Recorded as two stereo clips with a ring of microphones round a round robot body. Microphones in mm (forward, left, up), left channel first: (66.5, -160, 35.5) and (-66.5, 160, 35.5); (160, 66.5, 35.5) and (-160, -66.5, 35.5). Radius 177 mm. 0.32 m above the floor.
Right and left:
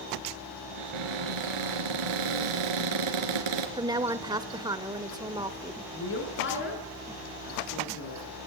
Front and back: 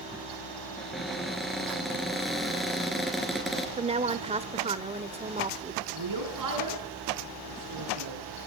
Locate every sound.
0.8 s a cupboard door: 110° left, 3 m
3.8 s a woman speaking: 170° left, 0.8 m
5.9 s a woman speaking: 125° right, 5.5 m